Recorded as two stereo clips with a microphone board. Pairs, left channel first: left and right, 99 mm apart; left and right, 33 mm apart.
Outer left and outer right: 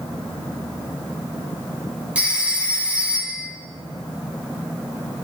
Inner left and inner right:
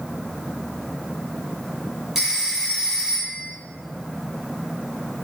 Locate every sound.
2.1 s a phone ringing: 10° right (ahead or behind), 4 m